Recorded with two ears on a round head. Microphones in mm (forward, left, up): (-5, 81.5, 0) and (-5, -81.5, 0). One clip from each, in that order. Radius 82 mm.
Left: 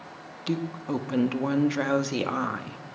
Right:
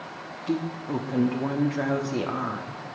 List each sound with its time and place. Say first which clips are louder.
0.5 s a woman speaking: right 1 dB; 65° left (ahead or behind), 1.0 m